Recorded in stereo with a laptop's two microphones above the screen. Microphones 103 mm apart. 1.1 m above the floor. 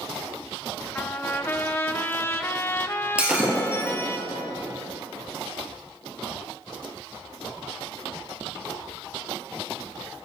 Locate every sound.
0.9 s a trumpet: 20° left (ahead or behind), 0.5 m
3.2 s breaking glass: 10° right (ahead or behind), 2.5 m